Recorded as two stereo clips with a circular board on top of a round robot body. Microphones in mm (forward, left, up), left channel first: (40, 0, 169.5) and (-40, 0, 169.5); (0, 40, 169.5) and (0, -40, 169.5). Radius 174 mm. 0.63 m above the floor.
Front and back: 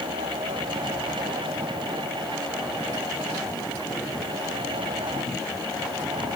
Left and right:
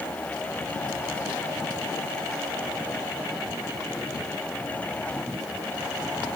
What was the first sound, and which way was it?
Only background noise.